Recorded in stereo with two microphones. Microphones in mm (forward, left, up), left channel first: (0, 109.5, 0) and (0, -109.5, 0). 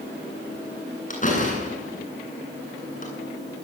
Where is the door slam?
35° left (ahead or behind), 8.5 m.